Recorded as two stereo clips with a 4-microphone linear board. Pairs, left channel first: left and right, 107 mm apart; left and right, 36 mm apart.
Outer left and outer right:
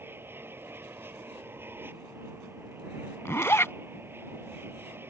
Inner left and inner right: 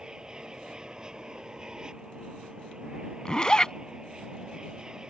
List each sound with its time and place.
0.0 s an aircraft: 20° right (ahead or behind)
3.2 s a zipper: 25° left (ahead or behind)